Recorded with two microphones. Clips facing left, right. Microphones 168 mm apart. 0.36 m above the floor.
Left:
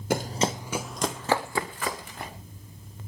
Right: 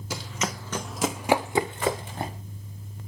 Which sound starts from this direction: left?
Running footsteps, at 0.1 s.